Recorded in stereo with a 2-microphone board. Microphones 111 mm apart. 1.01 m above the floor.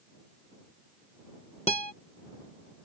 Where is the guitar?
70° left (ahead or behind).